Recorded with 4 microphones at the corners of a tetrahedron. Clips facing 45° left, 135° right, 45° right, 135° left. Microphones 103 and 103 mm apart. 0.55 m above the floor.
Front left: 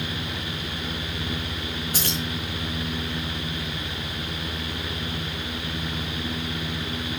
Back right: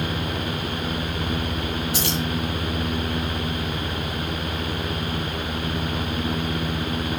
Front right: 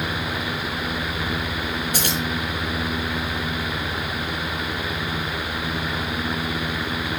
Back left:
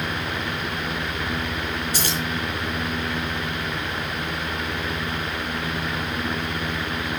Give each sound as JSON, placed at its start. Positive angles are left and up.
{"t": 1.9, "sound": "keys jangling", "azimuth_deg": 0, "distance_m": 4.0}